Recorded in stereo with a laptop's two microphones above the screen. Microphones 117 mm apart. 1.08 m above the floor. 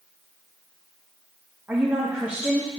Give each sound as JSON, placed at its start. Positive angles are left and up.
{"t": 1.7, "sound": "a woman speaking", "side_deg": -20, "distance_m": 1.2}